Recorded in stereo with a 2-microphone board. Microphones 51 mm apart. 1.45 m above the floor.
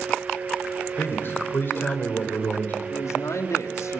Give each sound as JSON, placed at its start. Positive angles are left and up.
{"t": 1.0, "sound": "a man speaking", "side_deg": 50, "distance_m": 5.0}
{"t": 2.9, "sound": "a man speaking", "side_deg": 80, "distance_m": 3.0}